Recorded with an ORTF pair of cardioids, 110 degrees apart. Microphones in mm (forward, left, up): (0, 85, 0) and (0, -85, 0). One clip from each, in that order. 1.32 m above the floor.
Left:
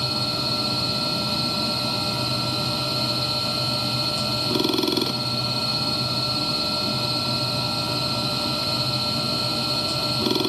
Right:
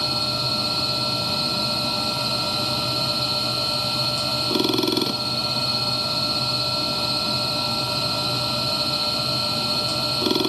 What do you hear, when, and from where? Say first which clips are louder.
0.0 s a machine running: right 1 dB; 20° right